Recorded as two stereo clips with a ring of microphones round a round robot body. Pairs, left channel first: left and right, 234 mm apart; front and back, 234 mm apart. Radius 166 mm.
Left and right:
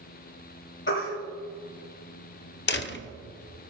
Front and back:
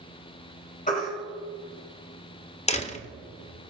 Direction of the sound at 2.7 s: 60° left.